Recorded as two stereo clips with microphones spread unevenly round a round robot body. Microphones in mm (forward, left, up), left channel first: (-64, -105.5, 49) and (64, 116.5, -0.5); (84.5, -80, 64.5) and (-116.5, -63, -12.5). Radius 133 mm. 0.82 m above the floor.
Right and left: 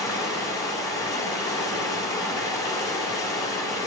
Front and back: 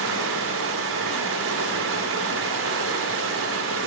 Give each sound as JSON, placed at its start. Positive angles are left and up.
{"t": 0.0, "sound": "running water", "azimuth_deg": 160, "distance_m": 1.7}